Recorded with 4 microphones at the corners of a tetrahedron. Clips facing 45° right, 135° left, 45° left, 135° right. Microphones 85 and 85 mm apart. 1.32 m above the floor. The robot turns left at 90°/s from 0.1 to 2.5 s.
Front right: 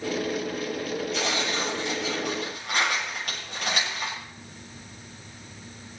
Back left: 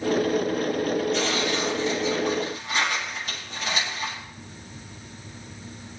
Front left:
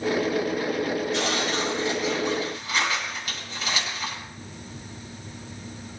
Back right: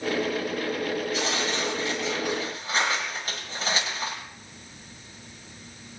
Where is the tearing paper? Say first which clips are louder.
Back left 3 dB, front left 2 dB; 45° left, 8 m; by 4.2 s 75° right, 8 m.